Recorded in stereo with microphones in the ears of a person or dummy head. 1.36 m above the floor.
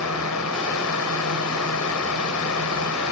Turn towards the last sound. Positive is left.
turn(degrees=80)